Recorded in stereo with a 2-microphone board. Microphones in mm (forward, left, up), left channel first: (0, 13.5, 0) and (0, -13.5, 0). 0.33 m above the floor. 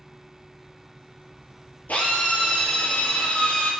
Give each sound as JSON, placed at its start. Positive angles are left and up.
{"t": 1.9, "sound": "a drill", "side_deg": 85, "distance_m": 4.5}